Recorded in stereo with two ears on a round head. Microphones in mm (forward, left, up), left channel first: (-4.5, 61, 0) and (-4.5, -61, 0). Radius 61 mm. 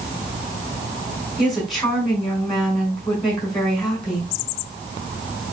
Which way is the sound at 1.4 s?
Centre (ahead or behind).